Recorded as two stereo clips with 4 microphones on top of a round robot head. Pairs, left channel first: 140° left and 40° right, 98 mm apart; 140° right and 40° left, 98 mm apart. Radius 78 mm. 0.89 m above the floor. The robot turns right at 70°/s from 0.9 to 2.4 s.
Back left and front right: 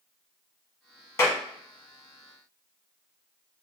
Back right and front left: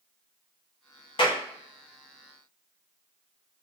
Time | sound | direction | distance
1.2 | a clap | 165° right | 1.2 m